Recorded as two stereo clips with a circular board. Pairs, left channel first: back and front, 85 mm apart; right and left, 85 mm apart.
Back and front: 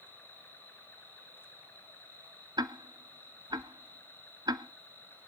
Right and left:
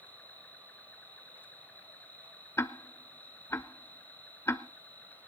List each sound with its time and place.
0.0 s an insect: 140° right, 2.5 m
2.6 s ticking: 30° right, 0.7 m